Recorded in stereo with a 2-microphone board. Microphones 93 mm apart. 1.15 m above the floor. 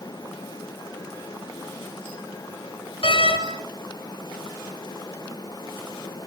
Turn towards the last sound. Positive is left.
turn(degrees=70)  # may be behind; listen again after turning